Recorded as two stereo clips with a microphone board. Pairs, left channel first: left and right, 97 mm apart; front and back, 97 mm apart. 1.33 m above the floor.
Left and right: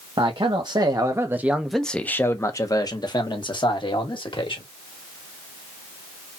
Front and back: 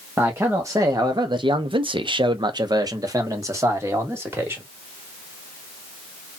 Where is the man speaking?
115° right, 0.9 m; by 4.6 s 115° left, 1.7 m.